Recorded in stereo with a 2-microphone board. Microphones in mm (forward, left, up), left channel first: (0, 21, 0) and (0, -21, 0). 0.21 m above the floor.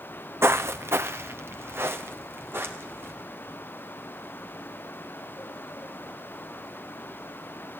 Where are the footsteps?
75° right (ahead or behind), 0.6 m; by 3.1 s 60° right (ahead or behind), 3 m.